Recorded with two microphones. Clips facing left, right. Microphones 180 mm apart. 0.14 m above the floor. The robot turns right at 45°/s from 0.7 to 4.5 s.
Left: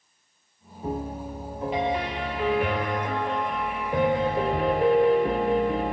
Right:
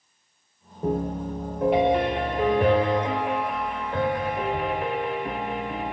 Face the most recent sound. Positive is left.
turn(degrees=45)